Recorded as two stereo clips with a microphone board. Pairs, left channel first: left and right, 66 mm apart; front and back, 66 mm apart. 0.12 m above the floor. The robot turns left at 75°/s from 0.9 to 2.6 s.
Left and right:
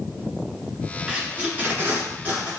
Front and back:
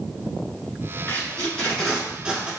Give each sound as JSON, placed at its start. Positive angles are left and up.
{"t": 1.1, "sound": "tape being pulled", "azimuth_deg": -25, "distance_m": 1.6}